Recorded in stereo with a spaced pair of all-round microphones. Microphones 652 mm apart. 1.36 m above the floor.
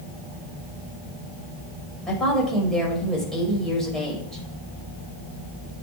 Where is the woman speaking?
Centre (ahead or behind), 5.5 m.